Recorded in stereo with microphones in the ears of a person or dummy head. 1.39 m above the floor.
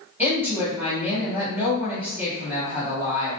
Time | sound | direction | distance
0.2 | a woman speaking | 15° right (ahead or behind) | 1.2 m